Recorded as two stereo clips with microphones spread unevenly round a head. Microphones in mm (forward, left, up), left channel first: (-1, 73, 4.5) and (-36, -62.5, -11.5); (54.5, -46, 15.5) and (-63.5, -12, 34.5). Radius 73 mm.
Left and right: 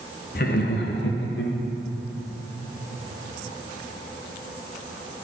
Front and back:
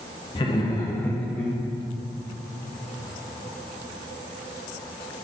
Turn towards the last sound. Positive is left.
turn(degrees=70)